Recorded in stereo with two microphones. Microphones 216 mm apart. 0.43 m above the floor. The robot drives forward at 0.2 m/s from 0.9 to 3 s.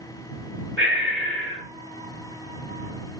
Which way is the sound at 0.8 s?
65° right (ahead or behind).